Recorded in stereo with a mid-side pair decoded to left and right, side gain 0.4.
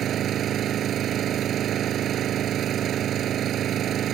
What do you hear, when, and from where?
0.0 s an engine running: 65° right